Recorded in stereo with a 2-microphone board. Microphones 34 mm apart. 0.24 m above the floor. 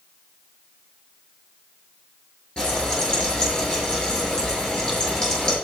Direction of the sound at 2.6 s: 25° left (ahead or behind).